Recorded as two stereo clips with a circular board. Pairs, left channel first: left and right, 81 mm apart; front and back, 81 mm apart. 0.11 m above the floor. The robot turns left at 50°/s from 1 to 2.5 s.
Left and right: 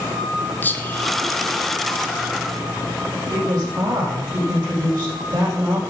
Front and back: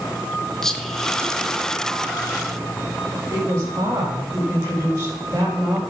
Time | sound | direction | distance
0.6 | whispering | 75° left | 1.1 m
3.3 | a woman speaking | 125° right | 5 m